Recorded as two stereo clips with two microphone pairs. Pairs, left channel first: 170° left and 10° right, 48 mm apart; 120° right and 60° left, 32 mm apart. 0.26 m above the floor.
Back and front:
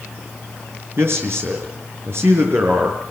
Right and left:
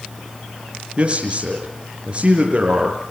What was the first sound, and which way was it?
A man speaking, 15° left.